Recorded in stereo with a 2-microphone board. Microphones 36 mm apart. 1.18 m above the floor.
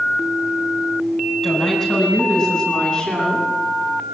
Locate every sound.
1.4 s a woman speaking: 15° left (ahead or behind), 7.5 m; by 3.5 s 25° left (ahead or behind), 10 m